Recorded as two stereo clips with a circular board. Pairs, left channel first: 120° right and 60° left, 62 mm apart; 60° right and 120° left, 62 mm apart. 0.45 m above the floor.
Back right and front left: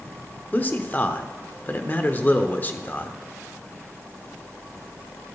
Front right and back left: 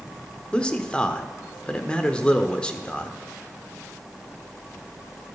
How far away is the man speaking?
About 0.9 m.